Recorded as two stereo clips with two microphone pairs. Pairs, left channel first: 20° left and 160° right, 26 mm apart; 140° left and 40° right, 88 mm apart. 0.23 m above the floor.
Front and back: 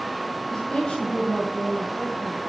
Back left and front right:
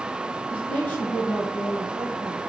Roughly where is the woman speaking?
Left.